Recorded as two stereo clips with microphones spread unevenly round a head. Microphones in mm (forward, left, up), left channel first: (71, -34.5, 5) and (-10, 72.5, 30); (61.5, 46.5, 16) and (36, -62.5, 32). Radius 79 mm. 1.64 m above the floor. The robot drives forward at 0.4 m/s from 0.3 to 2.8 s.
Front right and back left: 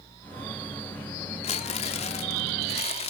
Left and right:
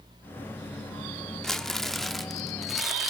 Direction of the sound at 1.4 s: 15° right.